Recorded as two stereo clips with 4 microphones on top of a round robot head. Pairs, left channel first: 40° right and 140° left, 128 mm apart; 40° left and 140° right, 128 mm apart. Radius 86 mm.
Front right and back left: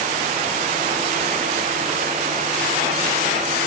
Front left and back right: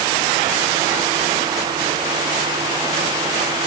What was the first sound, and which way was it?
Only background noise.